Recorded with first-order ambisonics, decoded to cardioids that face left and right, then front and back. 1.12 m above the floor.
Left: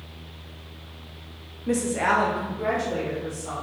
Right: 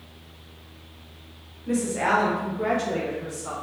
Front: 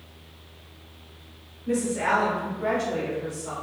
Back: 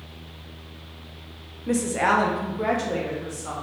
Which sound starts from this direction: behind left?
A woman speaking, at 1.7 s.